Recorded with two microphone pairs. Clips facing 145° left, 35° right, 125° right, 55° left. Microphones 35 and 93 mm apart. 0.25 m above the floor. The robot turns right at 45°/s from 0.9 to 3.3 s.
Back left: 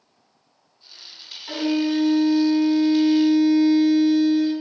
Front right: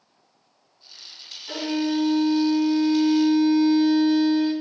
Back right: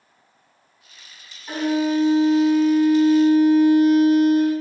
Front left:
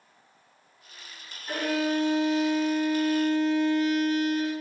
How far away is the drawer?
I don't hear a drawer.